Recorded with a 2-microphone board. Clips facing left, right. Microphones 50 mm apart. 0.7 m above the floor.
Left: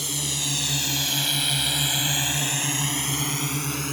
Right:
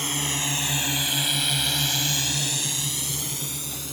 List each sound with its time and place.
0.0 s a drone: 40° right (ahead or behind); by 3.9 s 55° left (ahead or behind)